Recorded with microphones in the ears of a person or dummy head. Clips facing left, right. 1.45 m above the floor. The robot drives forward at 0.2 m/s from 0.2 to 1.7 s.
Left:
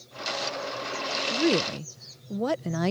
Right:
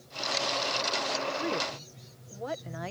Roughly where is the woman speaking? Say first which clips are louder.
Left 8 dB; left.